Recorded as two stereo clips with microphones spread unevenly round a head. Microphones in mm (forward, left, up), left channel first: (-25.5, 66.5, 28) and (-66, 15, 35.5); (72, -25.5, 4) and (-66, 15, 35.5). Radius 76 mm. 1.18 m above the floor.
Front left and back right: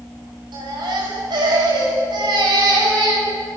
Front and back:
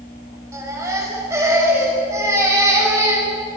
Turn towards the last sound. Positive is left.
turn(degrees=-125)